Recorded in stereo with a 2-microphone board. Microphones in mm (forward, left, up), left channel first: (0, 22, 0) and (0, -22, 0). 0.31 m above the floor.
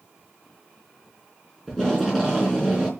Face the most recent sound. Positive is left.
turn(degrees=10)  # may be behind; listen again after turning